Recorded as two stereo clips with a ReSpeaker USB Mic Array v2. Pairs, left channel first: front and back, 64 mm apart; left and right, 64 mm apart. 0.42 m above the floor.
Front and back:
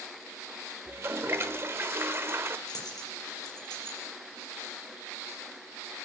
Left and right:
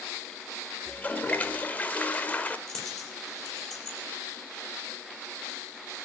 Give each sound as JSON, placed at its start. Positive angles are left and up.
{"t": 0.9, "sound": "a toilet flushing", "azimuth_deg": 150, "distance_m": 1.0}
{"t": 2.7, "sound": "a dropped coin", "azimuth_deg": 5, "distance_m": 6.5}